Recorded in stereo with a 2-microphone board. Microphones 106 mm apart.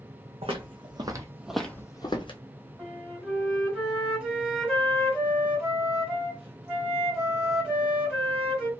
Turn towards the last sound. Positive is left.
turn(degrees=-10)  # may be behind; listen again after turning